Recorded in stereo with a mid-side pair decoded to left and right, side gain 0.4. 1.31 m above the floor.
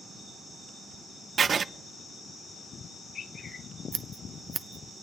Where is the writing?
50° right, 0.5 m.